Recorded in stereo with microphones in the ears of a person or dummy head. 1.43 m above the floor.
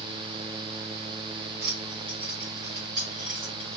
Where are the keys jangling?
55° right (ahead or behind), 0.7 m; by 3.8 s 20° right (ahead or behind), 3.5 m.